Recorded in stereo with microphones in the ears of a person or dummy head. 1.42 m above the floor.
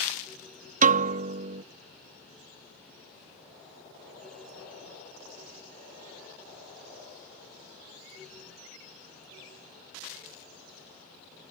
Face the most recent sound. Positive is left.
turn(degrees=-40)  # may be behind; listen again after turning